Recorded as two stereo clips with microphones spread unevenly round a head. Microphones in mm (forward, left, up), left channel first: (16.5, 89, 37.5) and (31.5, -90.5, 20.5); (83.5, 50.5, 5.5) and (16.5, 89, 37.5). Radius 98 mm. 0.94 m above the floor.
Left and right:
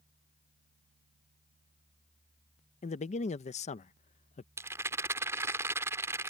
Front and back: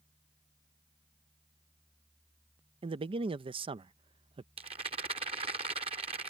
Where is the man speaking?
145° left.